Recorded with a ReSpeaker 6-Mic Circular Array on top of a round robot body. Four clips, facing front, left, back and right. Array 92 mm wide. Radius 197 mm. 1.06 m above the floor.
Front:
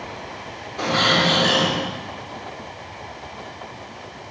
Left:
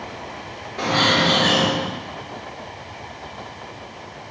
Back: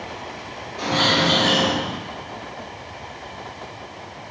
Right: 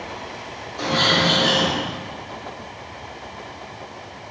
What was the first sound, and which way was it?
A bird, 85° left.